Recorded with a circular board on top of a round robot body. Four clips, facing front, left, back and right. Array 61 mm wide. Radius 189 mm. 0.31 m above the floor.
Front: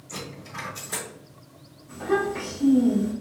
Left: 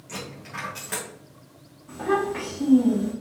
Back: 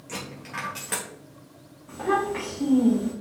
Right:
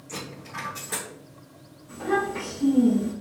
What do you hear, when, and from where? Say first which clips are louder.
0.1 s a dropped coin: left 1 dB, back 2 dB; 165° left, 1.8 m
1.9 s a child speaking: left 1 dB, even; 145° left, 2 m